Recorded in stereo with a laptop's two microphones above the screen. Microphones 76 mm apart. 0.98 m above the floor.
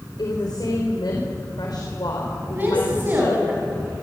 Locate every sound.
0.2 s a woman speaking: 70° left (ahead or behind), 4.5 m
2.5 s a woman speaking: 25° right (ahead or behind), 8 m